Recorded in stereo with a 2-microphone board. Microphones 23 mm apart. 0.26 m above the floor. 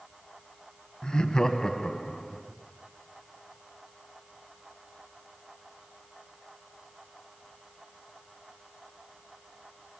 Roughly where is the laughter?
Left.